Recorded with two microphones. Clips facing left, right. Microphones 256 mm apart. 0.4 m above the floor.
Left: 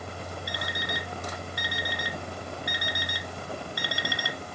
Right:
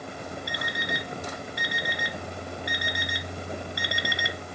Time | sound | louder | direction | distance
0.5 | an alarm clock | right 2 dB | 20° right (ahead or behind) | 1.2 m